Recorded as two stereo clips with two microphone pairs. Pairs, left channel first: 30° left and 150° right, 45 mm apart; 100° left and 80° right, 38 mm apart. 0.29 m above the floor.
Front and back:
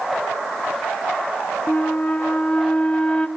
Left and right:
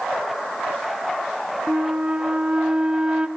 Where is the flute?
20° right, 0.7 m.